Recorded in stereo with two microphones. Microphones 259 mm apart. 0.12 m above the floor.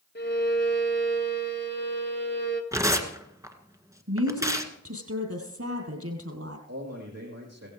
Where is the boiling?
No boiling in this recording.